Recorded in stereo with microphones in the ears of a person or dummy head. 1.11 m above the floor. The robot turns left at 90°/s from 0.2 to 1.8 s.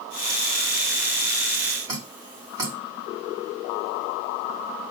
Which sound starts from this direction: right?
Dripping, at 1.9 s.